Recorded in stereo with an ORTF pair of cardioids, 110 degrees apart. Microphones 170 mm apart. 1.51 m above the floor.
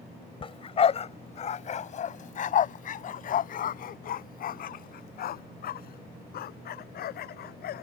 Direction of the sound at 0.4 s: 35° left.